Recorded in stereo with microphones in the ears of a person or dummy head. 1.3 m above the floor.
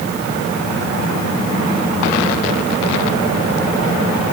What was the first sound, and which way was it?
Only background noise.